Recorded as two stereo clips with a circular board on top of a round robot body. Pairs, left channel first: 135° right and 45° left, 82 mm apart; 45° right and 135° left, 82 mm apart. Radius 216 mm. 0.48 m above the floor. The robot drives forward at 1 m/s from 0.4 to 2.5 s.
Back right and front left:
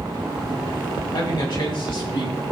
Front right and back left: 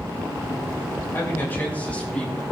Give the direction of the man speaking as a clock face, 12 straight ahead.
4 o'clock.